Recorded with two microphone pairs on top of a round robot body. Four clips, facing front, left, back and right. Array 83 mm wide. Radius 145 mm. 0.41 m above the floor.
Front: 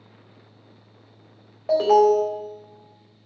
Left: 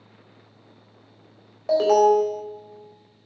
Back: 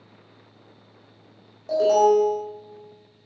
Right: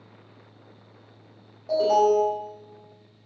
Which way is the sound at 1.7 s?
55° left.